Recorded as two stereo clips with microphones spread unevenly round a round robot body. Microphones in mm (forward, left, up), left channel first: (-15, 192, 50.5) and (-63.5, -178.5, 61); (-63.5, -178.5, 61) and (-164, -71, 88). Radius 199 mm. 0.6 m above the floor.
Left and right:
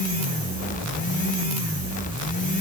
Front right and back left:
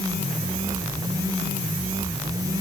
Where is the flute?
No flute in this recording.